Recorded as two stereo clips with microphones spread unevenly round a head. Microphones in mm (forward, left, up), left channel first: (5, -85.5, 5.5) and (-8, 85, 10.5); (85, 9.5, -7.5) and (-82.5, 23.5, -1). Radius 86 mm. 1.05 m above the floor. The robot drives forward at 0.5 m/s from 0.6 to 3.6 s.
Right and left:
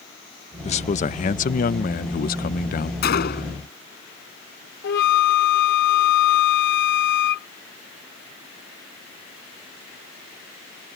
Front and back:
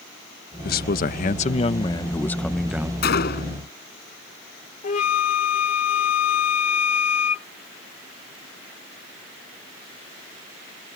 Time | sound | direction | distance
0.6 | a man speaking | 35° right | ?
3.0 | a gunshot | 45° right | ?
4.8 | a flute | 55° right | ?